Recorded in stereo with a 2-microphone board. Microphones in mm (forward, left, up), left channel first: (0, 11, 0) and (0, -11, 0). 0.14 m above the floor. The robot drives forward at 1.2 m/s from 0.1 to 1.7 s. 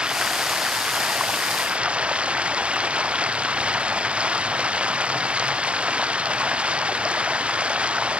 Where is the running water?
45° right (ahead or behind); by 8.2 s 55° right (ahead or behind).